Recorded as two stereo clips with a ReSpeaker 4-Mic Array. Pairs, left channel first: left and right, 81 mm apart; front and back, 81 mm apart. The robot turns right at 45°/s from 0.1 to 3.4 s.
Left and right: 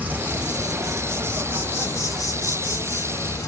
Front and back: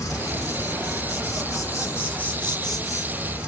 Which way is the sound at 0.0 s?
30° right.